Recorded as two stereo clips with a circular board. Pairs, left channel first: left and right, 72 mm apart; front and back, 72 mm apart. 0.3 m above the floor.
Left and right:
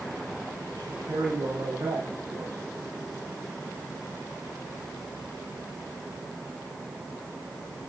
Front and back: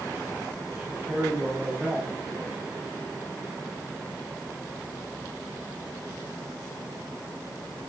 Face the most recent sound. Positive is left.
turn(degrees=-110)